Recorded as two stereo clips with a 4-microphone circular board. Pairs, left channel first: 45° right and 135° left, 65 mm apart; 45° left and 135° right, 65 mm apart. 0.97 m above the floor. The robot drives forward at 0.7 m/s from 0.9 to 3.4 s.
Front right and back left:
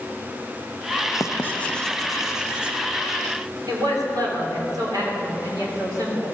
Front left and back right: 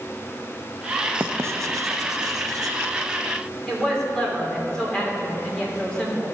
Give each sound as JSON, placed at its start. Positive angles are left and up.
{"t": 1.2, "sound": "writing", "azimuth_deg": -80, "distance_m": 0.6}
{"t": 3.7, "sound": "a woman speaking", "azimuth_deg": 125, "distance_m": 3.0}